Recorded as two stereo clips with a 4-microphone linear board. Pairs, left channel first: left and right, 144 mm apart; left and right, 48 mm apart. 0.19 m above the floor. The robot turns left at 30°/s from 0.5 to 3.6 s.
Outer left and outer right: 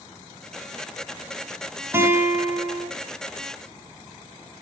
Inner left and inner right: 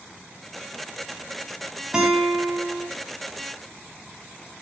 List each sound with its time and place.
1.9 s a guitar: 15° right (ahead or behind), 1.2 m; by 2.9 s 10° right (ahead or behind), 1.2 m